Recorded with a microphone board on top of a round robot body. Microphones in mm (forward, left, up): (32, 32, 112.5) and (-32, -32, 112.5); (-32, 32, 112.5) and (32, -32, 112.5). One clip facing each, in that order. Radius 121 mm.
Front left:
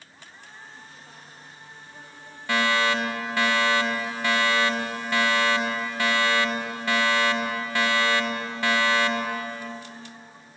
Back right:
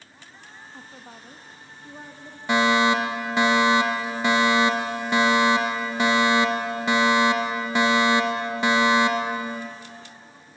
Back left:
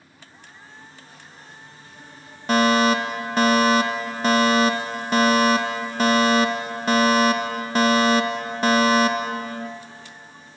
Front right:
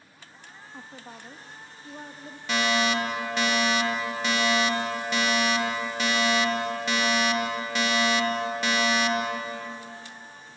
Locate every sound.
0.7 s a woman speaking: 85° right, 1.4 m
2.5 s a fire alarm: 160° left, 2 m